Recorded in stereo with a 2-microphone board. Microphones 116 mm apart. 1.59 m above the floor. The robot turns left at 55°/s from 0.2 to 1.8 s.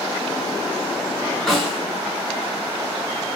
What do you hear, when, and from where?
1.5 s a snare drum: centre (ahead or behind), 1.9 m; by 1.8 s 10° right (ahead or behind), 1.9 m